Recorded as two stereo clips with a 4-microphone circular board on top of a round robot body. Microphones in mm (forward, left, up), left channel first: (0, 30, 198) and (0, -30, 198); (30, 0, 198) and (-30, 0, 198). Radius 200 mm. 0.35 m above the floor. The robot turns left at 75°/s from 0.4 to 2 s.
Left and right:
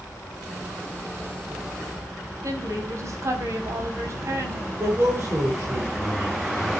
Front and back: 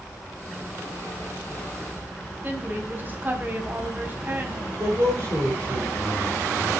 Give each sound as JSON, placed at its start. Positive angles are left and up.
{"t": 2.4, "sound": "a woman speaking", "azimuth_deg": -120, "distance_m": 4.5}
{"t": 4.8, "sound": "a man speaking", "azimuth_deg": -135, "distance_m": 7.0}